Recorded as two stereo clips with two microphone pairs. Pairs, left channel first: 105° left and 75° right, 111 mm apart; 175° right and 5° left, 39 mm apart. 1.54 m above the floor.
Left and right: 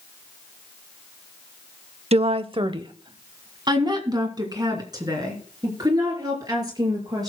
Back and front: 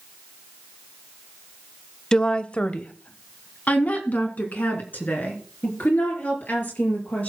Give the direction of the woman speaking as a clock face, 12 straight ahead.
3 o'clock.